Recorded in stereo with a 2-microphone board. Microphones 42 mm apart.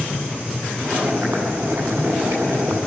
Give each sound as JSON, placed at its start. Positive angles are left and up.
{"t": 0.8, "sound": "boiling", "side_deg": -70, "distance_m": 7.5}